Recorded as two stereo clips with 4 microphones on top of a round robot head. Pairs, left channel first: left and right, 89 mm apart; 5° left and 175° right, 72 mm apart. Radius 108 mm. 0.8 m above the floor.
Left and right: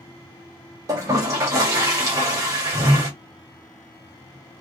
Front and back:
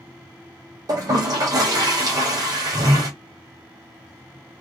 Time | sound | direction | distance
0.9 | a toilet flushing | 140° right | 1.2 m